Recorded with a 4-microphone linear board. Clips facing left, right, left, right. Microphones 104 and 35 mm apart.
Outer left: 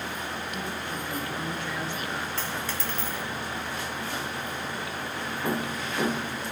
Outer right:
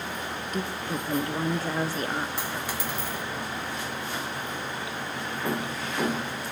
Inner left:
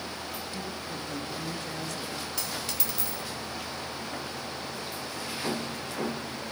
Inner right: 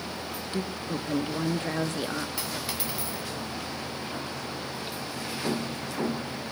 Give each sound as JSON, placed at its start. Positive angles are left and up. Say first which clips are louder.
{"t": 0.5, "sound": "a woman speaking", "louder": "outer right 3 dB, inner right 4 dB", "side_deg": -40, "distance_m": 1.1}
{"t": 2.4, "sound": "a dropped coin", "louder": "outer right 1 dB, inner right 2 dB", "side_deg": -15, "distance_m": 2.0}